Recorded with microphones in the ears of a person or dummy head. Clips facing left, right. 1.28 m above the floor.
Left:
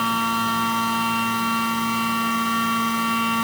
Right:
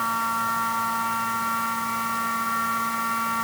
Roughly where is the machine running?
Left.